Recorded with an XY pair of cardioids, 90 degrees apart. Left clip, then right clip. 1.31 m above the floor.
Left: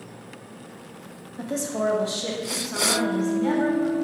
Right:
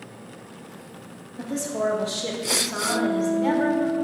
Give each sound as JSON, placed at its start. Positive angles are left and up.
{"t": 1.4, "sound": "a woman speaking", "azimuth_deg": 30, "distance_m": 0.9}
{"t": 2.9, "sound": "a guitar", "azimuth_deg": 30, "distance_m": 1.9}